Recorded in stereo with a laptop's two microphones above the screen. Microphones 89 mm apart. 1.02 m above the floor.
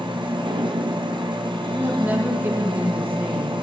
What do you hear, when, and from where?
0.0 s a machine running: 65° right (ahead or behind), 0.8 m
1.7 s a woman speaking: 20° right (ahead or behind), 0.9 m